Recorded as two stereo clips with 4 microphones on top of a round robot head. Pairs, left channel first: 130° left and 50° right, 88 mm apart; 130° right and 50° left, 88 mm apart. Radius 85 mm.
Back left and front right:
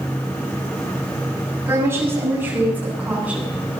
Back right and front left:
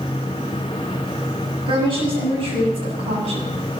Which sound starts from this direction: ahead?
A woman speaking, at 1.7 s.